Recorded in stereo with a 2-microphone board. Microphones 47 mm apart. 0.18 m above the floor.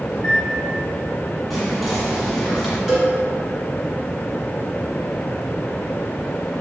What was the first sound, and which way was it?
A microwave, 20° left (ahead or behind).